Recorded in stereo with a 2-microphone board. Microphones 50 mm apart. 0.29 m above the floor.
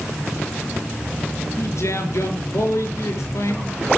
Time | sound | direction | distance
1.6 | a man speaking | 75° left (ahead or behind) | 4.5 m